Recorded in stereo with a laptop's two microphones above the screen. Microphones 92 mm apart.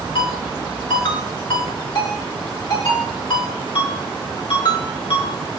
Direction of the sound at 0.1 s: 65° left (ahead or behind).